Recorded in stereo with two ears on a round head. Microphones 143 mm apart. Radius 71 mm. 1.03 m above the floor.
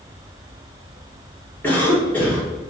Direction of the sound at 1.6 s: 10° left (ahead or behind).